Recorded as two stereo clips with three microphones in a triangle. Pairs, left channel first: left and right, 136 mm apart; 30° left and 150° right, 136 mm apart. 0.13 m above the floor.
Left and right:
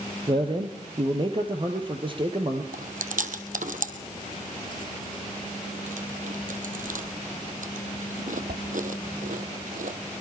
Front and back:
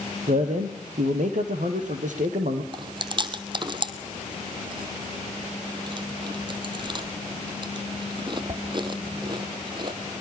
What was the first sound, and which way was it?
A man speaking, 140° right.